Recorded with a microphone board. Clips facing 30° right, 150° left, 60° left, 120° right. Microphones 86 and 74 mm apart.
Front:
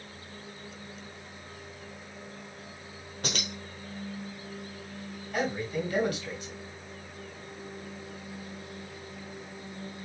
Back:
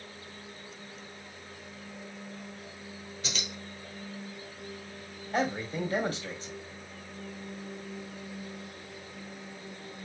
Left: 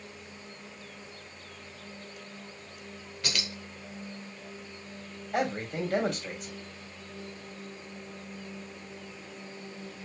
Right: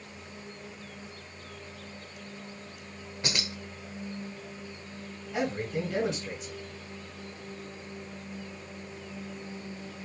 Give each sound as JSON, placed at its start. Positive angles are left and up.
{"t": 3.2, "sound": "keys jangling", "azimuth_deg": -55, "distance_m": 1.1}
{"t": 5.3, "sound": "a man speaking", "azimuth_deg": 95, "distance_m": 2.5}